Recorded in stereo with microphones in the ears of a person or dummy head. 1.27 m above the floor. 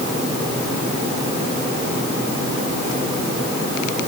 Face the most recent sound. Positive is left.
No sound to turn to.